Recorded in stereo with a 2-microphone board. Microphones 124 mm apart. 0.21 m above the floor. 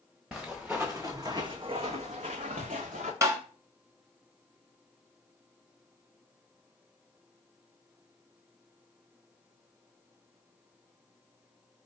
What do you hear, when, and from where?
0.3 s footsteps: 5° right (ahead or behind), 1.0 m; by 3.1 s 75° right (ahead or behind), 1.0 m
3.2 s tapping: 25° right (ahead or behind), 0.8 m